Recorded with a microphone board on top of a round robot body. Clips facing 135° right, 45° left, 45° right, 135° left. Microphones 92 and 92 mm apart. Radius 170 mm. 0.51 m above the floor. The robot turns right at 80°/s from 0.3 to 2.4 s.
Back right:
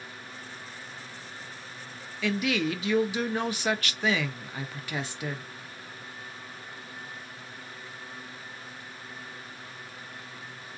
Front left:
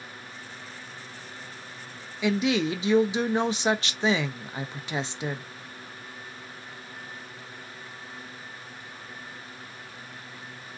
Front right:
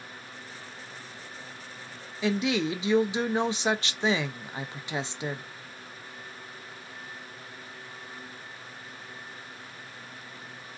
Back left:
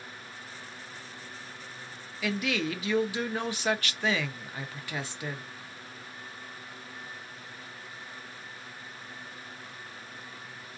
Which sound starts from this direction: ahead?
A woman speaking, at 2.2 s.